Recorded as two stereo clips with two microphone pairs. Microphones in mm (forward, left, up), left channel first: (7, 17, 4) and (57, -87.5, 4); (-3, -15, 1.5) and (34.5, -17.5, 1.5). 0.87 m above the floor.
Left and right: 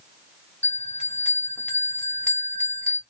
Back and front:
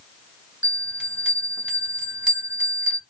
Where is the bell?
45° left, 1.3 m.